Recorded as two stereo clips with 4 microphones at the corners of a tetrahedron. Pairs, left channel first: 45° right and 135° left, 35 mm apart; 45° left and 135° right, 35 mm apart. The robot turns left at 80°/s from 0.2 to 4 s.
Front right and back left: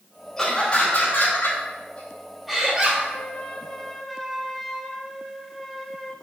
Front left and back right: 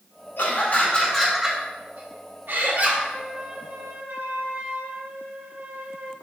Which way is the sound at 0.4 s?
35° left.